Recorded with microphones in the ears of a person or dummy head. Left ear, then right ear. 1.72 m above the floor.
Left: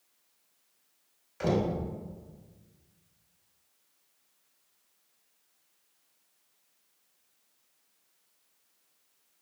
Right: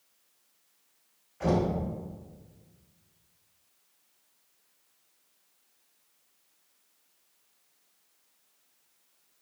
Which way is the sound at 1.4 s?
65° left (ahead or behind).